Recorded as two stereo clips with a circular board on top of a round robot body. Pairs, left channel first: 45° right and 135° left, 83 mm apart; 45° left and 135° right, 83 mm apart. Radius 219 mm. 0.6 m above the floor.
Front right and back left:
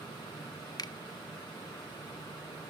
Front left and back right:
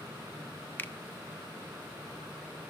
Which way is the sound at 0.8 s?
20° right.